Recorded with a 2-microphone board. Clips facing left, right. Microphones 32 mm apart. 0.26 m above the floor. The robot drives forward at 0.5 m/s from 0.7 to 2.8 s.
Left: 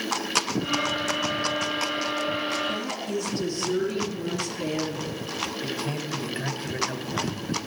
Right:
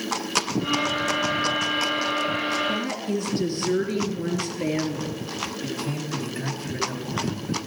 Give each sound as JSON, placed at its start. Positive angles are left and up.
{"t": 2.7, "sound": "a woman speaking", "side_deg": -30, "distance_m": 3.5}
{"t": 5.6, "sound": "a man speaking", "side_deg": 30, "distance_m": 1.6}